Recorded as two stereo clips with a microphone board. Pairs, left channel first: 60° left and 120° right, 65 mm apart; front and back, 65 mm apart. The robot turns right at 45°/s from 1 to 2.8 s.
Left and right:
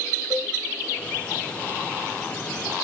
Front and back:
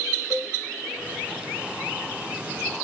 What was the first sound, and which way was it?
A cowbell, 20° left.